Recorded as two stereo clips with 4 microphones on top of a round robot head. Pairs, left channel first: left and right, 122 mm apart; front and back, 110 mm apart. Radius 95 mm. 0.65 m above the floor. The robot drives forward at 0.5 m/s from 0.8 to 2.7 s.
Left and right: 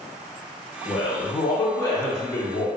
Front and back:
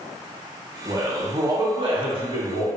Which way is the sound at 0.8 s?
115° left.